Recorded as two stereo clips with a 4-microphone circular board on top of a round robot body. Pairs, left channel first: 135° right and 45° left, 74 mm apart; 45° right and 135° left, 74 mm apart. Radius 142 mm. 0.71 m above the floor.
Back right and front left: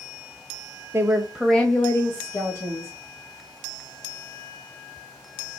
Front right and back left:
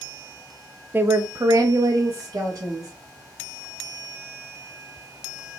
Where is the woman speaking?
80° left, 0.7 m; by 2.9 s straight behind, 1.7 m.